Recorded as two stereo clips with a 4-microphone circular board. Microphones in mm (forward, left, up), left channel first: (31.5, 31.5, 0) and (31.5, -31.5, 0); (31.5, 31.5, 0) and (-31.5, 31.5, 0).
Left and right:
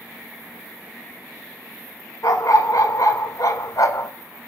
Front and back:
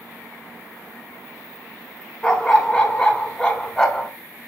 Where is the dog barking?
75° left, 1.6 m.